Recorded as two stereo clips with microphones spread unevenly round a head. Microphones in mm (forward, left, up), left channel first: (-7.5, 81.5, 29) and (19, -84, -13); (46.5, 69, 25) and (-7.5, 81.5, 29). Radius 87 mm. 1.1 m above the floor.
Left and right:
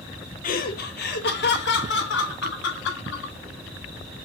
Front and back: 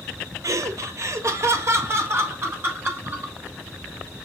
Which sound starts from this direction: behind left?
Laughter, at 0.4 s.